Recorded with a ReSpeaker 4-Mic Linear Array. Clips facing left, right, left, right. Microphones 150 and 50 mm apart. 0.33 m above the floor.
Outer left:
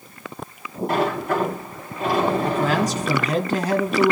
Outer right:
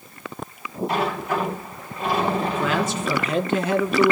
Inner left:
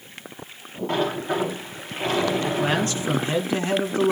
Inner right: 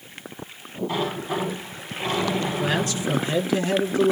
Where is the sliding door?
50° left (ahead or behind), 7.5 m.